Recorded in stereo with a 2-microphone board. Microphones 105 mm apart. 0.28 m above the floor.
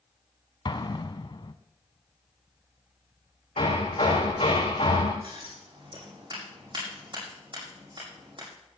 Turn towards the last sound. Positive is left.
turn(degrees=-55)  # may be behind; listen again after turning